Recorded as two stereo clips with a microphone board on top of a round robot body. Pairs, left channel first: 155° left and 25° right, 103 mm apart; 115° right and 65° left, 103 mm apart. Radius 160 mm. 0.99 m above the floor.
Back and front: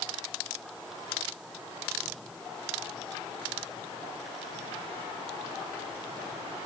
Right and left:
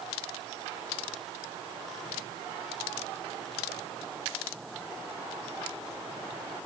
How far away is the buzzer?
No buzzer in this recording.